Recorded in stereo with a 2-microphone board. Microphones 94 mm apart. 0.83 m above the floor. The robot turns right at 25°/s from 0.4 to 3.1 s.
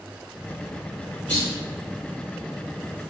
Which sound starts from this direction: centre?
A clunk, at 1.3 s.